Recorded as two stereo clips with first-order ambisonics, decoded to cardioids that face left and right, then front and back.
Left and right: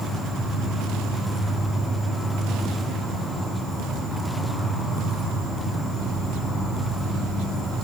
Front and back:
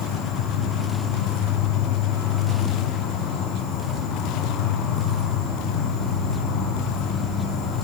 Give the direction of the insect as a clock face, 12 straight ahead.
12 o'clock.